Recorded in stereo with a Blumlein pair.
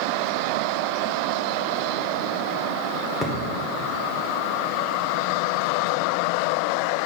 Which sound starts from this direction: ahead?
A thud, at 3.2 s.